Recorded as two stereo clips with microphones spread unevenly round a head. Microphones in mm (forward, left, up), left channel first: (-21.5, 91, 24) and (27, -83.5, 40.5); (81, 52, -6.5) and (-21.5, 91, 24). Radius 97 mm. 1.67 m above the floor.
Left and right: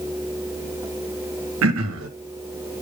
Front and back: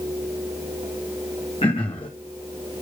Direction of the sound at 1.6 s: 90° right.